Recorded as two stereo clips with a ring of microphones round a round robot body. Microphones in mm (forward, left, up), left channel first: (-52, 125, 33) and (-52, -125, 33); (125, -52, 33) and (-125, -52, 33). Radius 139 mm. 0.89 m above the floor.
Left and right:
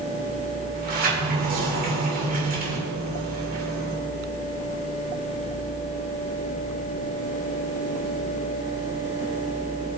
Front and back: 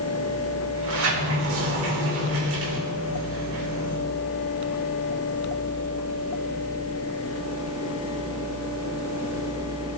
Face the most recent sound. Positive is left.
turn(degrees=-145)